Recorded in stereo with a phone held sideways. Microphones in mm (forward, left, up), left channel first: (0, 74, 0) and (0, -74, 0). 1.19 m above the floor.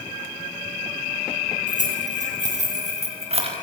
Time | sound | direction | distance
1.7 | keys jangling | 65° right (ahead or behind) | 7.5 m